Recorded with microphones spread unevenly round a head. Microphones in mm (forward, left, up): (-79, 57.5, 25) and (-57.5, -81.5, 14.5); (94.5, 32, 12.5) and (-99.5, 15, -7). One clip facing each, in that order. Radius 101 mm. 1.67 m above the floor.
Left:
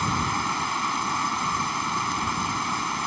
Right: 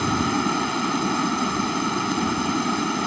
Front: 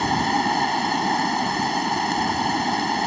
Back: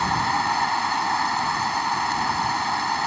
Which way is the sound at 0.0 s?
60° right.